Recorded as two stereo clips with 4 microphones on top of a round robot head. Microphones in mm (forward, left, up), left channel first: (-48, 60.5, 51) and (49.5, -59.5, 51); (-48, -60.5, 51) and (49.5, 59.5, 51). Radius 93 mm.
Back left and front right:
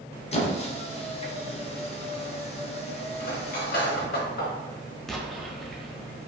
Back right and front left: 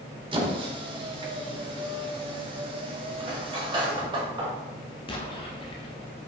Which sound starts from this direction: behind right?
An explosion, at 5.1 s.